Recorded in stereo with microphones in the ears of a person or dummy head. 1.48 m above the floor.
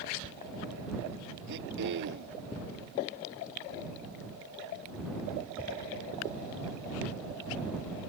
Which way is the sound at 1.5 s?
65° right (ahead or behind).